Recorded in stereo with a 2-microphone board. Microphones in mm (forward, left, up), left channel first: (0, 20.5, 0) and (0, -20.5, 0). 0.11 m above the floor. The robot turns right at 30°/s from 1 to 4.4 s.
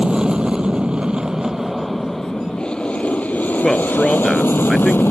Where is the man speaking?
15° left (ahead or behind); by 5.0 s centre (ahead or behind).